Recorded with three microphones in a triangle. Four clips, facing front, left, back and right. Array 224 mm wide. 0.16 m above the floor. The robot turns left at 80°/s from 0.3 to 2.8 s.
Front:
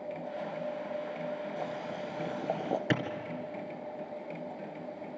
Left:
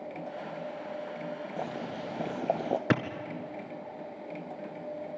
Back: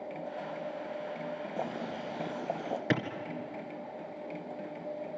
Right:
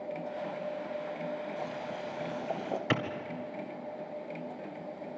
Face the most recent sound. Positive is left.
turn(degrees=95)